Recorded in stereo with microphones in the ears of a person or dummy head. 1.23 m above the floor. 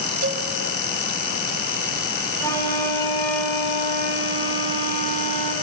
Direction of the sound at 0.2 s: 50° right (ahead or behind).